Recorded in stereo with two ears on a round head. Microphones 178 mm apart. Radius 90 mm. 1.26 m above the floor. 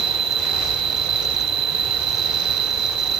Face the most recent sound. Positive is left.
turn(degrees=-60)  # may be behind; listen again after turning